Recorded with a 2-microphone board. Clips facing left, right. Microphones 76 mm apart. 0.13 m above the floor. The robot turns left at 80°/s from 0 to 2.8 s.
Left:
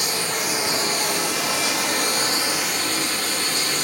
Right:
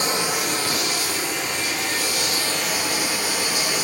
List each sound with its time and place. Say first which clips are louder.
0.0 s running water: right 2 dB; 145° right, 1.1 m; by 3.9 s 10° right, 1.1 m